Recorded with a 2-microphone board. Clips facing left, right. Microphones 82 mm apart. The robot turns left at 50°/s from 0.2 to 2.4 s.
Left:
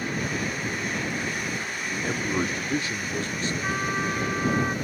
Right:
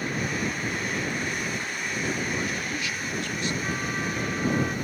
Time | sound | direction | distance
1.9 | a man speaking | 45° left (ahead or behind) | ?
3.6 | a trumpet | 35° left (ahead or behind) | ?